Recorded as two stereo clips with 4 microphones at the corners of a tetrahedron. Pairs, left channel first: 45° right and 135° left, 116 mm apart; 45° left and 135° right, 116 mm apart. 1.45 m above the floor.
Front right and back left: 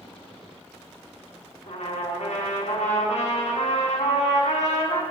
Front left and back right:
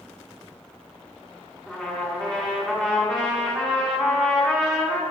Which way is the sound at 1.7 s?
40° right.